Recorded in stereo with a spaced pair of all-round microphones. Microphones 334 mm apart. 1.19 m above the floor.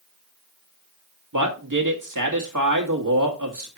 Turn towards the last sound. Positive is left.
turn(degrees=-65)  # may be behind; listen again after turning